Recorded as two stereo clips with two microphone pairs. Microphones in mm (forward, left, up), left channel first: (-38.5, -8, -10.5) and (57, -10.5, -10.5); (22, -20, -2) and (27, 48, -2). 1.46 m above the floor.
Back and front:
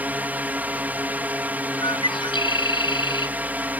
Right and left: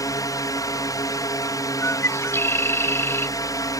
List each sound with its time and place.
0.0 s a drone: 75° right
1.8 s a bird: 145° right